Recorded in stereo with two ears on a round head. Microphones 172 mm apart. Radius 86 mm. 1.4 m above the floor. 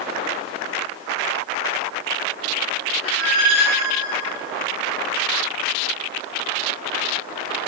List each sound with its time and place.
3.0 s a squeak: 80° right, 9 m